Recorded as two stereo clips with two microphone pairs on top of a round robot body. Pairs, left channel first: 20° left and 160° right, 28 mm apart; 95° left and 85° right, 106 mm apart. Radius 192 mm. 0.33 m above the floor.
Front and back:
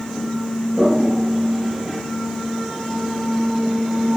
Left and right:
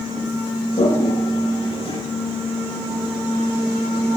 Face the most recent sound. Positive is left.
turn(degrees=135)